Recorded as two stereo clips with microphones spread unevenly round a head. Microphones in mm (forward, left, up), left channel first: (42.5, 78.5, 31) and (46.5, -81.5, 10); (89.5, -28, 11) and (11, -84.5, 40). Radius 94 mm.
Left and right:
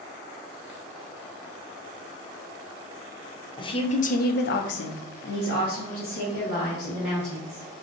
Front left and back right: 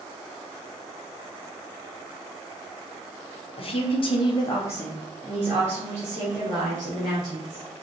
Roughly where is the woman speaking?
Ahead left.